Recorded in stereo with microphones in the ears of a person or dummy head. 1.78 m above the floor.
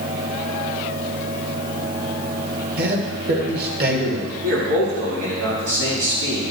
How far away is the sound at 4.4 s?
About 5 m.